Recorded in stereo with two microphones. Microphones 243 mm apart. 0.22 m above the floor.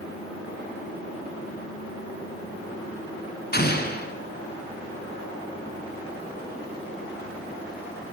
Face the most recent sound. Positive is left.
turn(degrees=40)  # may be behind; listen again after turning